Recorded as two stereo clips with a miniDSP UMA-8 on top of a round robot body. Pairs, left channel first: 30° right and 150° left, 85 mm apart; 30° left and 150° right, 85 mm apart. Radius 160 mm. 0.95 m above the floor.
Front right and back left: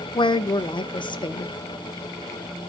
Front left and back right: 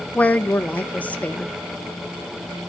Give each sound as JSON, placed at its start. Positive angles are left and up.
{"t": 0.1, "sound": "a woman speaking", "azimuth_deg": -40, "distance_m": 1.1}